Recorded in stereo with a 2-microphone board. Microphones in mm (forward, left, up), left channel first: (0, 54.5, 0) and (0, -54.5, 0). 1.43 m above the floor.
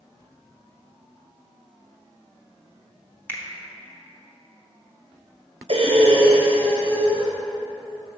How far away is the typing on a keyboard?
I don't hear typing on a keyboard.